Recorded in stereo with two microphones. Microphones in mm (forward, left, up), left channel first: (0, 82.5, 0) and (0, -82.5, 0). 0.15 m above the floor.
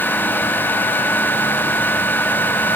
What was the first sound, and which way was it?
Only background noise.